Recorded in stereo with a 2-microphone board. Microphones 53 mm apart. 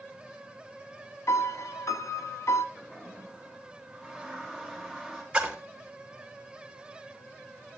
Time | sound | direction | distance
1.3 | a piano | 70° left (ahead or behind) | 0.6 m
2.8 | a toilet flushing | 5° left (ahead or behind) | 5.5 m
5.3 | a splash | 15° right (ahead or behind) | 3 m